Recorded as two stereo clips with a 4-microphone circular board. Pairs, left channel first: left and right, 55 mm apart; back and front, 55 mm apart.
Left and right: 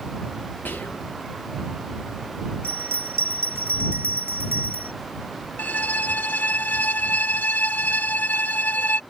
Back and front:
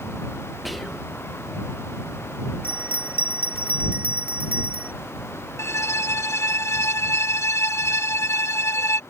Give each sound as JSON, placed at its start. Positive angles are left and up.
{"t": 0.7, "sound": "whispering", "azimuth_deg": 90}
{"t": 2.6, "sound": "a bell", "azimuth_deg": -55}
{"t": 5.6, "sound": "a violin", "azimuth_deg": 145}